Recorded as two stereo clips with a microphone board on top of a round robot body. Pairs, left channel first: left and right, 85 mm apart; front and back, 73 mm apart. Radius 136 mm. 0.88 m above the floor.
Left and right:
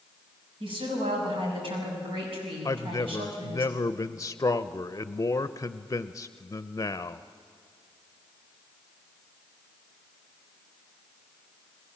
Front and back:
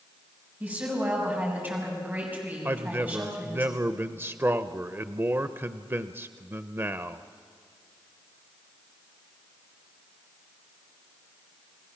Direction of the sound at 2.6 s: 130° left.